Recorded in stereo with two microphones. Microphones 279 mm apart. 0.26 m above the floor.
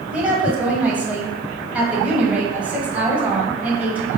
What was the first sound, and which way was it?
A woman speaking, 5° right (ahead or behind).